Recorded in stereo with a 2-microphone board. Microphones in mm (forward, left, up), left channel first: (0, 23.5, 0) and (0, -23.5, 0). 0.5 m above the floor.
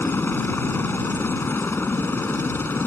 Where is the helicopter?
50° left (ahead or behind).